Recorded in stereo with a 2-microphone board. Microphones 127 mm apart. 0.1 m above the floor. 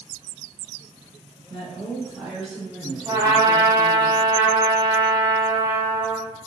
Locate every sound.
1.5 s a woman speaking: 25° right (ahead or behind), 1.6 m; by 4.1 s 10° left (ahead or behind), 1.6 m
3.1 s a trumpet: 25° right (ahead or behind), 0.6 m